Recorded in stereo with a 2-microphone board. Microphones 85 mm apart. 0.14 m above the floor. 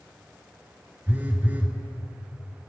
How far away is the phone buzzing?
About 1.4 m.